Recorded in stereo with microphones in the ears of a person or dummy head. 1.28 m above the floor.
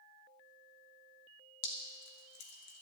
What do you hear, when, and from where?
1.6 s dripping: 75° left (ahead or behind), 1.7 m